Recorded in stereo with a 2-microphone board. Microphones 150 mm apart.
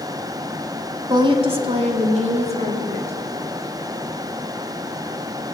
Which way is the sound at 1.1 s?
30° right (ahead or behind).